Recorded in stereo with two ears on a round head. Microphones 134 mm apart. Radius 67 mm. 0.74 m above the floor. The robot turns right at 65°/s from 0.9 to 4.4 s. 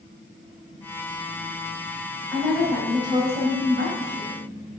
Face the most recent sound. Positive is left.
turn(degrees=-65)